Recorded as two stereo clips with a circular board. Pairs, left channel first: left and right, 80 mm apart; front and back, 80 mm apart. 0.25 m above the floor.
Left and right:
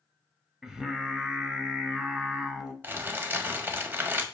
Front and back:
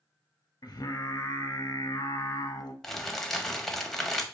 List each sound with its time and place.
0.6 s singing: 5° right, 0.5 m
2.8 s crumpling: 80° right, 0.5 m